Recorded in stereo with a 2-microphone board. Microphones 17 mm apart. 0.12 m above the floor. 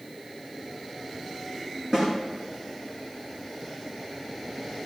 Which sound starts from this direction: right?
A snare drum, at 1.9 s.